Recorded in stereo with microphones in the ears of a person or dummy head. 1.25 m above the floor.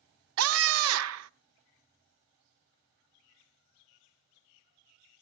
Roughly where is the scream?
Right.